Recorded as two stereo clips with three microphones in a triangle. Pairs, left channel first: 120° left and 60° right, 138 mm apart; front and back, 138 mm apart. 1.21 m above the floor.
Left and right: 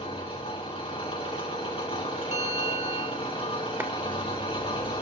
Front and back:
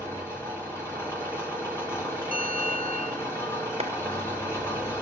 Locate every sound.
0.0 s an engine running: 75° left, 4 m
2.3 s a bell: 165° left, 1.4 m
3.8 s a clap: 130° right, 0.6 m